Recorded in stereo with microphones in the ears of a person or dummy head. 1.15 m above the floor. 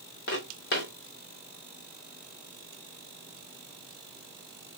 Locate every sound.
0.3 s footsteps: 60° left (ahead or behind), 2.5 m